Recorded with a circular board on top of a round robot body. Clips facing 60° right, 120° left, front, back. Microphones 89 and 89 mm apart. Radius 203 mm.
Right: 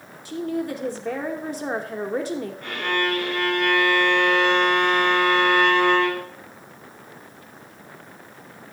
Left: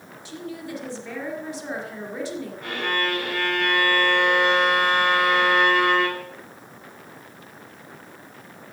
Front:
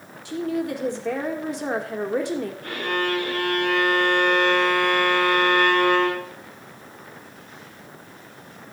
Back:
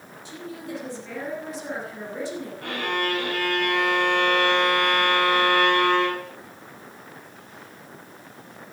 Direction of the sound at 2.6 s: 160° right.